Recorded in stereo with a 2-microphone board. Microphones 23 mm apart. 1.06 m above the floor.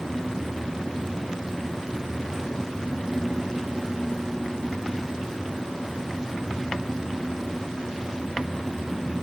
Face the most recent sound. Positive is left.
No sound to turn to.